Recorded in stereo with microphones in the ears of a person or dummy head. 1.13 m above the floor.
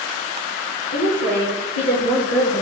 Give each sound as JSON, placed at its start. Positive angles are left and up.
{"t": 0.9, "sound": "a woman speaking", "side_deg": 40, "distance_m": 0.5}